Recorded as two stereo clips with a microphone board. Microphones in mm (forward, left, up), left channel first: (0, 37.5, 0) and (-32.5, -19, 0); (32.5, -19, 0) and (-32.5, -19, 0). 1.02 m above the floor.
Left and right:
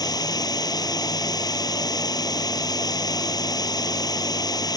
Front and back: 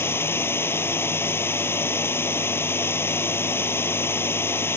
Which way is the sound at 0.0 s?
50° left.